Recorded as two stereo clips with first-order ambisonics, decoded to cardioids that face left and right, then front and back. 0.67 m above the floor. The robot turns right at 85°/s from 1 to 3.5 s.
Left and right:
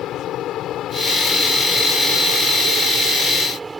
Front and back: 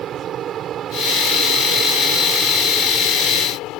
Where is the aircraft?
130° left; by 3.8 s 15° right.